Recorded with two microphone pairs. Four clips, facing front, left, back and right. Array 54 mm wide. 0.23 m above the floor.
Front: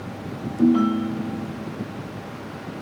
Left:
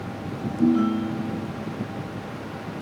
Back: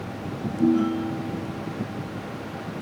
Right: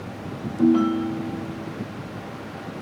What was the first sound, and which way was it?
A ringtone, 50° right.